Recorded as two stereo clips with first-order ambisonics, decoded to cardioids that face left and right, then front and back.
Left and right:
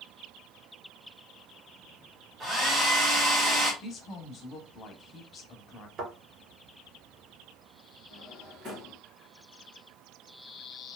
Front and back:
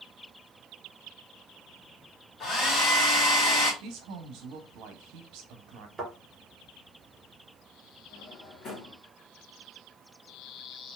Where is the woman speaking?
155° left, 0.9 m.